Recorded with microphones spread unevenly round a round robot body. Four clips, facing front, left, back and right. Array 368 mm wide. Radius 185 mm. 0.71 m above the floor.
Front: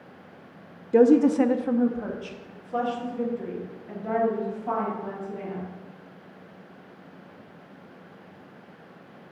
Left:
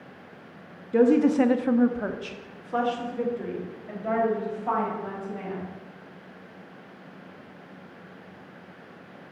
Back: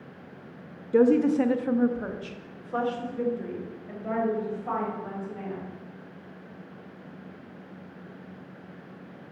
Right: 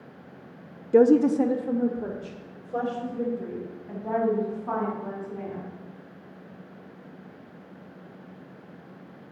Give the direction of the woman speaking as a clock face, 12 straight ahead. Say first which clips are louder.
Right 1 dB, front 3 dB; 3 o'clock.